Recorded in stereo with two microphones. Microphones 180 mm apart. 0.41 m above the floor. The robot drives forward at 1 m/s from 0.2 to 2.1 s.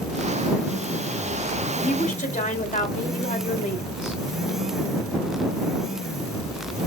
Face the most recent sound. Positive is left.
turn(degrees=45)  # may be behind; listen again after turning